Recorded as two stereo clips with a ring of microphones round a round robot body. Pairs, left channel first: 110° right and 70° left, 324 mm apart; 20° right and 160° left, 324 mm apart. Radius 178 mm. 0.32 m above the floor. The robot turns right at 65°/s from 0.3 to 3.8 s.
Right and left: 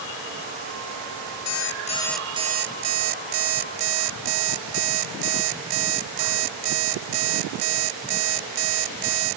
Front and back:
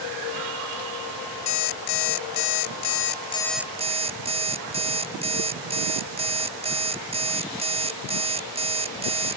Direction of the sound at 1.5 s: 70° right.